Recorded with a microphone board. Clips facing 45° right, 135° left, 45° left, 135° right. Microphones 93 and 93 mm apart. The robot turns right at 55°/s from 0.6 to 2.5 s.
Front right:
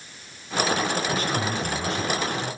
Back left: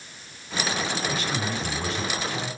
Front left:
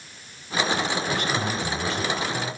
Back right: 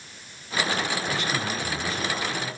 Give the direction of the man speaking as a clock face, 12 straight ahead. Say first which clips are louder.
Front right 3 dB, front left 2 dB; 12 o'clock.